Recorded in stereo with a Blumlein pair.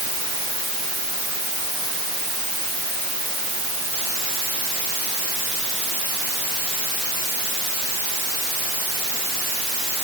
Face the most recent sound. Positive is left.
No sound to turn to.